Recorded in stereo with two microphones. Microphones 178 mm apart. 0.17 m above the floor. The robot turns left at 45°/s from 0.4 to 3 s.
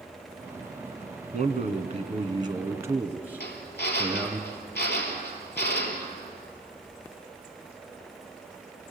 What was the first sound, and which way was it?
A man speaking, 90° right.